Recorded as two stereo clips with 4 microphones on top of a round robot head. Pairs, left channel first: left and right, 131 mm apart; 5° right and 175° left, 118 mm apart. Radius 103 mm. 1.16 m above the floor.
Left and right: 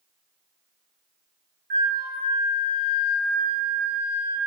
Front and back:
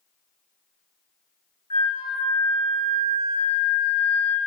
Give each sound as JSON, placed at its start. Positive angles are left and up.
{"t": 1.7, "sound": "a flute", "azimuth_deg": -65, "distance_m": 0.9}